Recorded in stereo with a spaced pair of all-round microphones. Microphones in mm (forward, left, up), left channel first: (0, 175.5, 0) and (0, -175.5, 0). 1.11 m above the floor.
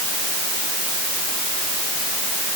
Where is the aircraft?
No aircraft in this recording.